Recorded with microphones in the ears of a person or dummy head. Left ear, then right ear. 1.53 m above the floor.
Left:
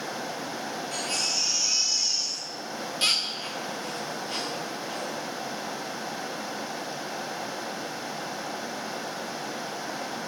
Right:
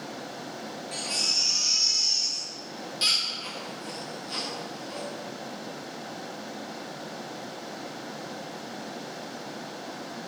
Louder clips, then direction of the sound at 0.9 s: Right 2 dB; 25° left (ahead or behind).